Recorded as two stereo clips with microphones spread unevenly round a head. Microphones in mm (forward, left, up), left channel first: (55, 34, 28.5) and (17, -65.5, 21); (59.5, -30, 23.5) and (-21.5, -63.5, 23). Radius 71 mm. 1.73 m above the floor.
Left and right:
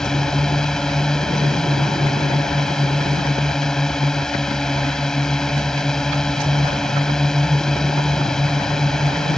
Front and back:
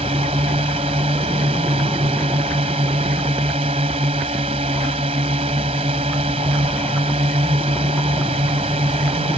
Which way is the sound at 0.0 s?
155° left.